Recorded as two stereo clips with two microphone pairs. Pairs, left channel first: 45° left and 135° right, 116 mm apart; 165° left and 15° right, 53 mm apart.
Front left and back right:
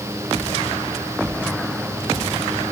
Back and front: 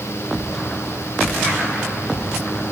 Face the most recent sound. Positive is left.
No sound to turn to.